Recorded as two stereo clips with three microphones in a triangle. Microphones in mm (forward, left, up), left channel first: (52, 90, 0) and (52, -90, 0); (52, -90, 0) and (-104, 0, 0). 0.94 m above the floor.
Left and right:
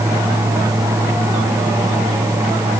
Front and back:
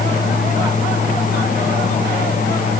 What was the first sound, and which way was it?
Only background noise.